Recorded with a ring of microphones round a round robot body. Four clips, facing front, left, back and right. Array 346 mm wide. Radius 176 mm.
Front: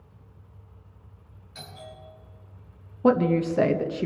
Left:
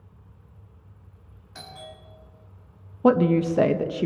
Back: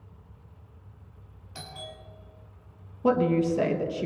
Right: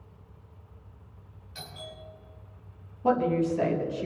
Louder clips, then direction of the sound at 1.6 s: Left 2 dB, back 1 dB; 135° left.